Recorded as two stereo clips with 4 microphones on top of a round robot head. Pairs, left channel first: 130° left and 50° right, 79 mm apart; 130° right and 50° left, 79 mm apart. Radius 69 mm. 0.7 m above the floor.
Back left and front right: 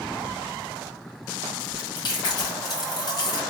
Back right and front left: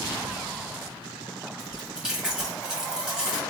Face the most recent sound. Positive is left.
turn(degrees=130)